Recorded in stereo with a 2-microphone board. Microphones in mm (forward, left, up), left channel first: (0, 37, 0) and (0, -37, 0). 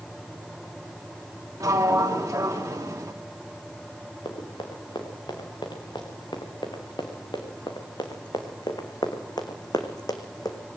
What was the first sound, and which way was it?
A sliding door, 50° right (ahead or behind).